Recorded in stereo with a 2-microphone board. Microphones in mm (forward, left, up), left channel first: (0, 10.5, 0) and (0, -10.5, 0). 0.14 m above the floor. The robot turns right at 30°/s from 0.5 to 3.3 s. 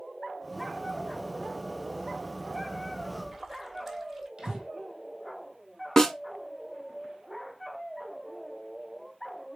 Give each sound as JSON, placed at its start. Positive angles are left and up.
{"t": 3.0, "sound": "a splash", "side_deg": -10, "distance_m": 1.0}
{"t": 4.4, "sound": "breathing", "side_deg": -40, "distance_m": 1.3}
{"t": 6.0, "sound": "a snare drum", "side_deg": 20, "distance_m": 0.6}